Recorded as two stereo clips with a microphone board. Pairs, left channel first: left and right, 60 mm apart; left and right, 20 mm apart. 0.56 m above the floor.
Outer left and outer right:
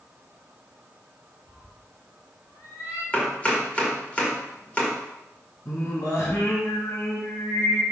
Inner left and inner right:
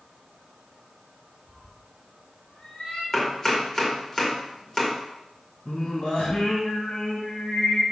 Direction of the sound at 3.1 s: 25° left (ahead or behind).